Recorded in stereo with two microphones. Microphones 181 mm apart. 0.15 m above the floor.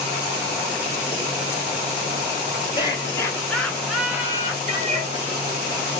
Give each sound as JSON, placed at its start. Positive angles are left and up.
{"t": 2.8, "sound": "laughter", "side_deg": 25, "distance_m": 1.9}
{"t": 4.7, "sound": "a cat meowing", "side_deg": -40, "distance_m": 1.2}